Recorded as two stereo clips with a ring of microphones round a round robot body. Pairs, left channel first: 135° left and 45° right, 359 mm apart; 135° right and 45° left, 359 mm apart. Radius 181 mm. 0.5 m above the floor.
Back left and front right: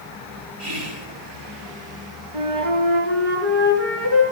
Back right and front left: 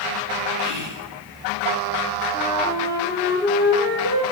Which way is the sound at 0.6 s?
5° left.